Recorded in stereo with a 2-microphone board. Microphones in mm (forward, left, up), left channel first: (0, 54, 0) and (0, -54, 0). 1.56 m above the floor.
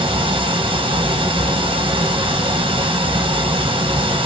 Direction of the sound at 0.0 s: 50° right (ahead or behind).